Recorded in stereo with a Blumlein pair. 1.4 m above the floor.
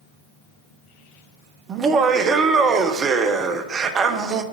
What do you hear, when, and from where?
1.7 s laughter: 25° right, 0.6 m